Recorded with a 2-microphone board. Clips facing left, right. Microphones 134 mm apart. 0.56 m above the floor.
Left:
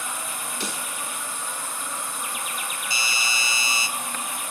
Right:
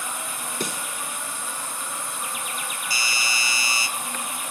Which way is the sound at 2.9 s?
25° left (ahead or behind).